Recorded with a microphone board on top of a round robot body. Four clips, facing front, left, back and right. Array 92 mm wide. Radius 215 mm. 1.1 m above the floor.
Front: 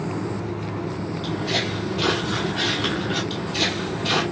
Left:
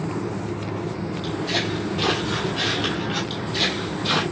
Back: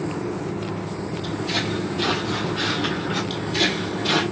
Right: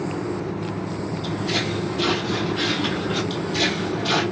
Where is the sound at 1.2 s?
35° right, 1.2 m; by 3.2 s 120° left, 1.5 m.